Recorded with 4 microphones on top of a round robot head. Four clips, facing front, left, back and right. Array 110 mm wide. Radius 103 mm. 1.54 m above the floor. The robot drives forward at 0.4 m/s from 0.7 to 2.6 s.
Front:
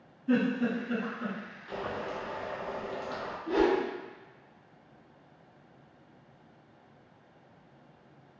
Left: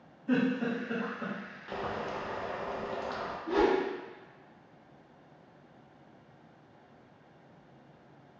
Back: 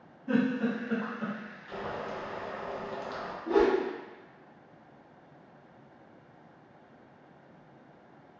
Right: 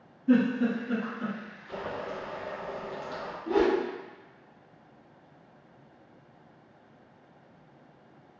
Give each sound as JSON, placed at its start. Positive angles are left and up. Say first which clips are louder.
{"t": 0.3, "sound": "a giggle", "louder": "right 5 dB, even", "azimuth_deg": 165, "distance_m": 1.5}
{"t": 1.7, "sound": "boiling", "louder": "even, front 1 dB", "azimuth_deg": 75, "distance_m": 0.7}
{"t": 3.5, "sound": "a whoosh", "louder": "right 2 dB, back 2 dB", "azimuth_deg": -125, "distance_m": 1.3}